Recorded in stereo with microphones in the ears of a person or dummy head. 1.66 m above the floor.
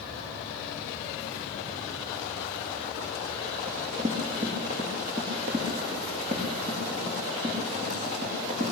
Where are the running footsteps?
35° right (ahead or behind), 5 m.